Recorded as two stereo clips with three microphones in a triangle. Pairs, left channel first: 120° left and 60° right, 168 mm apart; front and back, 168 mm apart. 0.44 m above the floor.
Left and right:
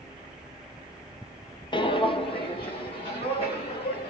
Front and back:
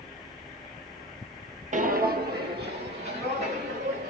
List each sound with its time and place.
1.7 s footsteps: 175° left, 0.5 m; by 4.1 s straight behind, 3 m